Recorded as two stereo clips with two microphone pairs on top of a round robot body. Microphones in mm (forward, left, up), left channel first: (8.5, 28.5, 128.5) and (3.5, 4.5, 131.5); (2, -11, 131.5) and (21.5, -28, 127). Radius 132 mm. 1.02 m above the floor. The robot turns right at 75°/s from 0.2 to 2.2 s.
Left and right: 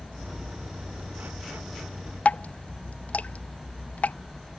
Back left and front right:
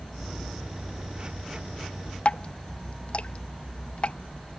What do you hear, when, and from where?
2.2 s dripping: 100° left